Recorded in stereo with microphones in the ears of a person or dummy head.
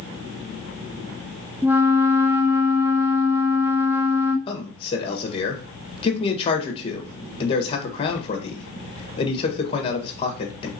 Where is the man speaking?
30° left (ahead or behind), 1.5 m.